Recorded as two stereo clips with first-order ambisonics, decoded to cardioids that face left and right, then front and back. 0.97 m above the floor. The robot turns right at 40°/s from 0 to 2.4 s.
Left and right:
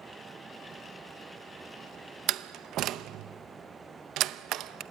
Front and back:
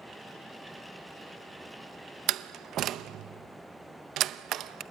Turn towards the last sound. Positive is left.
turn(degrees=-130)